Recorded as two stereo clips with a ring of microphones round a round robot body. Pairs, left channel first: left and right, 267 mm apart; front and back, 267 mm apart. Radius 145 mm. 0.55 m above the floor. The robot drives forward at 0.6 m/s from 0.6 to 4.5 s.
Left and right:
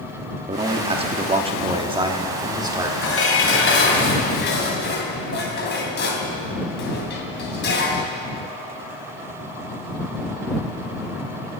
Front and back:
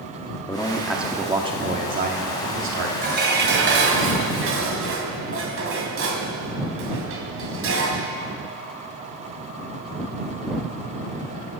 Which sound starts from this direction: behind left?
Dishes clattering, at 3.0 s.